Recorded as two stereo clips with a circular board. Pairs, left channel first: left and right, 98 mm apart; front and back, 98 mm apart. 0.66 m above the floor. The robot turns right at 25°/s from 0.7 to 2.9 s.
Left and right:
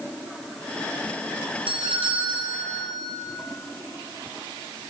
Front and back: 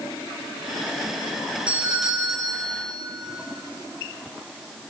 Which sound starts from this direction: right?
A doorbell, at 1.7 s.